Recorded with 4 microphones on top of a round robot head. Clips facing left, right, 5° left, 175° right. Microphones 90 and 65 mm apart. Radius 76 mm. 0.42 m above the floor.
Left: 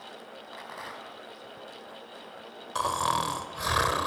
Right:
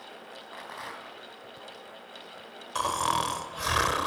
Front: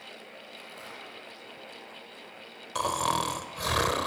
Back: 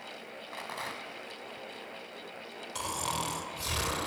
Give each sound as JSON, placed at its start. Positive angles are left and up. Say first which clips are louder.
{"t": 0.5, "sound": "a rattle", "louder": "right 1 dB, back 8 dB", "azimuth_deg": 180, "distance_m": 3.5}
{"t": 2.8, "sound": "snoring", "louder": "even, front 7 dB", "azimuth_deg": 10, "distance_m": 2.5}